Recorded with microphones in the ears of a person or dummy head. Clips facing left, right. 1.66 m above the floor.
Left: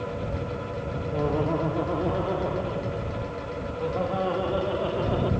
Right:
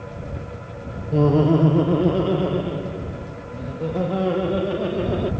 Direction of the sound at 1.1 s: 50° right (ahead or behind).